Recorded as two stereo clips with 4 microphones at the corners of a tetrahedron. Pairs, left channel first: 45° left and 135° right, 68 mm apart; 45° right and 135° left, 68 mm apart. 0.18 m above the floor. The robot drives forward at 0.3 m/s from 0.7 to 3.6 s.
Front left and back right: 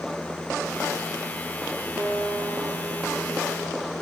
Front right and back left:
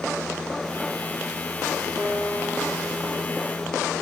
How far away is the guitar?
About 3.5 m.